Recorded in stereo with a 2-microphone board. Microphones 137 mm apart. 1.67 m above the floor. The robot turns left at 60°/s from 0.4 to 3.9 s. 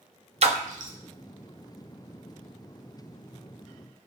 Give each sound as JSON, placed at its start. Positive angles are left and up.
{"t": 0.4, "sound": "a splash", "side_deg": -50, "distance_m": 0.6}